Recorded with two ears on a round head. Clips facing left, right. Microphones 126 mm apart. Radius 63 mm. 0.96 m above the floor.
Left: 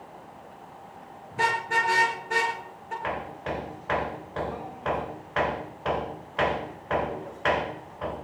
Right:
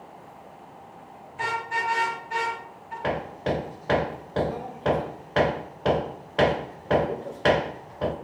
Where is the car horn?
70° left (ahead or behind), 7.5 m; by 2.9 s 55° left (ahead or behind), 7.5 m.